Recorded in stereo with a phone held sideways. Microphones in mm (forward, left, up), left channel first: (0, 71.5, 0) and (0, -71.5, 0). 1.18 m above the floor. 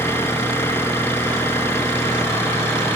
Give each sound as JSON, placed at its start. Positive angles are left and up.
{"t": 0.0, "sound": "an engine running", "side_deg": 15}